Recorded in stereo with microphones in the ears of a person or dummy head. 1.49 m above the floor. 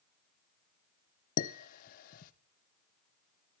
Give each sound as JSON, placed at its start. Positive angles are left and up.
{"t": 1.4, "sound": "dishes clattering", "side_deg": 55, "distance_m": 0.9}